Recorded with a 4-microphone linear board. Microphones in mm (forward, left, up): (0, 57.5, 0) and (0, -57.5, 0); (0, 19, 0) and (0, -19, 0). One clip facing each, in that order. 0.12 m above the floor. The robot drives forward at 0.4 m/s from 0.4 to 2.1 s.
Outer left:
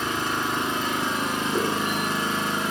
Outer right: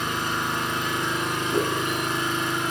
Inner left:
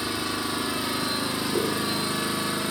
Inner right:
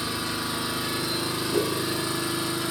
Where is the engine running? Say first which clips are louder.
Outer left 1 dB, inner left 1 dB; 30° left (ahead or behind), 3.5 m; by 2.7 s 35° left (ahead or behind), 3 m.